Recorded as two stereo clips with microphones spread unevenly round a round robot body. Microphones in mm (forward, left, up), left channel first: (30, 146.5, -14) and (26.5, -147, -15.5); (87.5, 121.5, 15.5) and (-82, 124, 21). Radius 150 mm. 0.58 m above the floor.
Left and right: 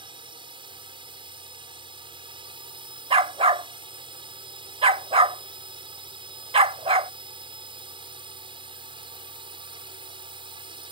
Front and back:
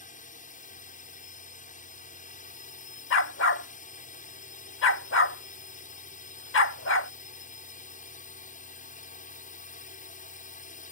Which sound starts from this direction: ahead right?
A drone, at 0.0 s.